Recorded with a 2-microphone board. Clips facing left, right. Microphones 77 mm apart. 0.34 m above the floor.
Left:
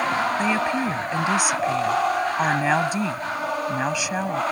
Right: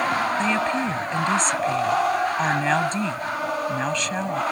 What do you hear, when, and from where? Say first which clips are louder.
0.4 s a woman speaking: even; 10° left (ahead or behind)